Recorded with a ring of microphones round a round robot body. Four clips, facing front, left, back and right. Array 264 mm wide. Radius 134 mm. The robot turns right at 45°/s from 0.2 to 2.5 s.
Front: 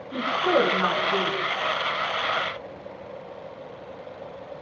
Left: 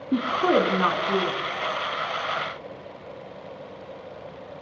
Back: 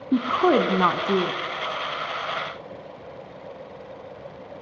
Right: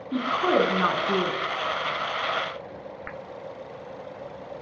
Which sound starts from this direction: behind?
A woman speaking, at 0.1 s.